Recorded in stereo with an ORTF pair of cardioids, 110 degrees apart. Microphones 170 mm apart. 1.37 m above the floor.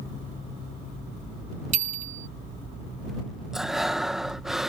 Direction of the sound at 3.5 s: Straight ahead.